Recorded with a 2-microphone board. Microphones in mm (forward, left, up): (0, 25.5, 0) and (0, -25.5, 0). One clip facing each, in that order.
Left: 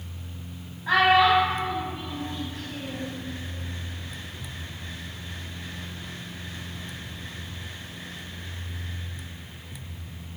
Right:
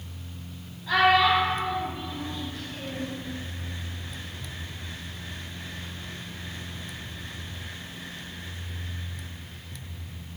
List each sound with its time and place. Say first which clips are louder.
0.9 s a child speaking: left 2 dB; 40° left (ahead or behind), 0.9 m